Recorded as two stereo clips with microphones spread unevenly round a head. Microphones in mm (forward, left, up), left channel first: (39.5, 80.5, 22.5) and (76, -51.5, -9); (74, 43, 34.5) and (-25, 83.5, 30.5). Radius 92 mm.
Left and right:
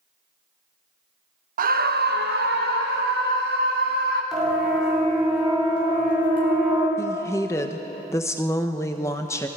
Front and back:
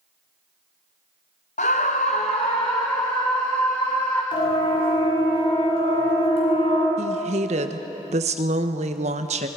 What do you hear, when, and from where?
1.6 s a scream: 55° right, 0.7 m; by 4.2 s 95° right, 3 m
4.3 s a siren: 15° left, 8 m; by 6.9 s 5° left, 9 m
7.0 s a woman speaking: 170° left, 1.2 m